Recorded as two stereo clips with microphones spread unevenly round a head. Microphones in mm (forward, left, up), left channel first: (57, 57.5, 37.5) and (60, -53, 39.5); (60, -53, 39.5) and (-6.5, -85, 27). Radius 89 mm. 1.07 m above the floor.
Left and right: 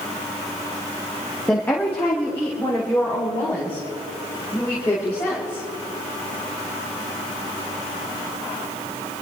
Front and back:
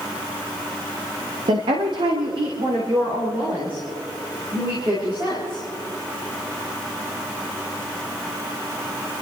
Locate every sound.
1.5 s a woman speaking: 175° left, 1.1 m; by 5.6 s 160° left, 6 m